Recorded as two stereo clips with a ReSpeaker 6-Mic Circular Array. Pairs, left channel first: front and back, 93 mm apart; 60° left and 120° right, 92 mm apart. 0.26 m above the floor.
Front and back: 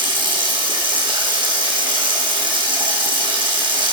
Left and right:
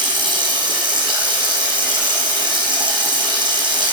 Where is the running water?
150° right, 3 m.